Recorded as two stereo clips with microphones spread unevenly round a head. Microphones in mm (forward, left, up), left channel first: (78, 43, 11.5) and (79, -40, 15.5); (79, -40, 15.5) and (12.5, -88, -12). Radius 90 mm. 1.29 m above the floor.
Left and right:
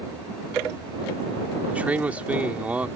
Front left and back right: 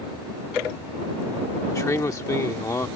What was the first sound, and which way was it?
A man speaking, 15° right.